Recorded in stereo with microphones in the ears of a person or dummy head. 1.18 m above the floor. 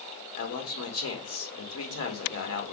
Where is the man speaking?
75° left (ahead or behind), 1.6 m.